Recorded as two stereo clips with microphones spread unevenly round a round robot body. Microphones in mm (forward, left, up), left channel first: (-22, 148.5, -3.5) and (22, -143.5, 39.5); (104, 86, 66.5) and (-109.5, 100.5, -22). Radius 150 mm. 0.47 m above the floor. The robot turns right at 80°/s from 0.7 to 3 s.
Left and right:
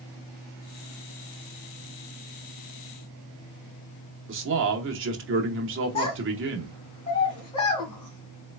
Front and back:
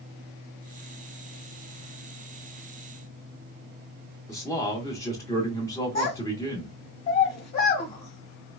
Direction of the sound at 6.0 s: 25° left.